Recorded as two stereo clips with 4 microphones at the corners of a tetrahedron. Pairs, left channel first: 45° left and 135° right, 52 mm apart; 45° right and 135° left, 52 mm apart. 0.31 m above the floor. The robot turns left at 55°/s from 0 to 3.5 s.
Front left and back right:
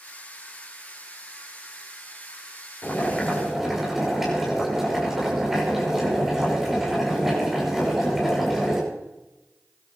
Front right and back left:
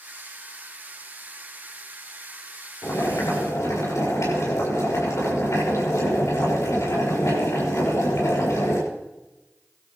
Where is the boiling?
15° right, 7 m; by 8.8 s 55° right, 7 m.